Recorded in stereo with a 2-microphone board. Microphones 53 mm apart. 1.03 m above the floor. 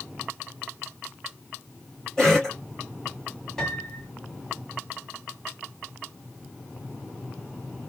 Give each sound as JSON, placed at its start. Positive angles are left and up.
{"t": 2.2, "sound": "a cough", "side_deg": 10, "distance_m": 2.0}
{"t": 3.6, "sound": "a piano", "side_deg": 10, "distance_m": 2.5}